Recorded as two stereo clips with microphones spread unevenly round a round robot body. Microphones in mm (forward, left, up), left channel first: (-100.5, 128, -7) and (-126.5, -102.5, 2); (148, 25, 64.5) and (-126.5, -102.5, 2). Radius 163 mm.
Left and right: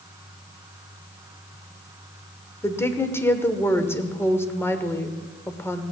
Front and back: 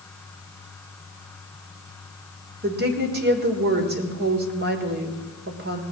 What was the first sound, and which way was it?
A woman speaking, 160° left.